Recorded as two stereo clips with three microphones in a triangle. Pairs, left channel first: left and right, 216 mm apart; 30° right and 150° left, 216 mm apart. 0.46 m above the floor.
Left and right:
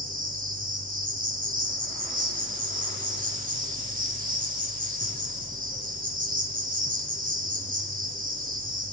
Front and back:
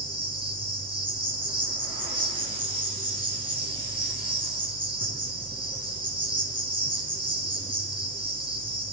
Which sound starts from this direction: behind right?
An insect, at 0.0 s.